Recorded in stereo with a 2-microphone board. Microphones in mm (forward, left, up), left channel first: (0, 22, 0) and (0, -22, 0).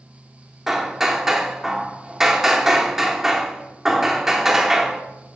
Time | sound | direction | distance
0.7 | hammering | 5° right (ahead or behind) | 0.7 m